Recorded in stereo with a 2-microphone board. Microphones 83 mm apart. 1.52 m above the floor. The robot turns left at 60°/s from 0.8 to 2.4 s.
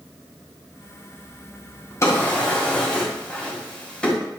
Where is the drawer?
35° left (ahead or behind), 2.5 m; by 4.1 s 15° left (ahead or behind), 2.5 m.